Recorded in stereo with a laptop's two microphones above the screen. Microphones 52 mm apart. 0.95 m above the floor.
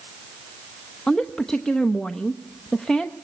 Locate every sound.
1.1 s a woman speaking: 10° left (ahead or behind), 0.8 m